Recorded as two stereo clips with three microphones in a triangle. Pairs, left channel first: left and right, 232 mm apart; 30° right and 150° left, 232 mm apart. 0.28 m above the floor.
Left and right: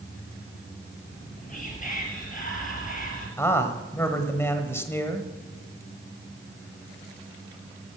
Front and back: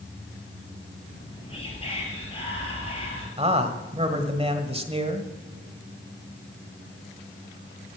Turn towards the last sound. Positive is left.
turn(degrees=155)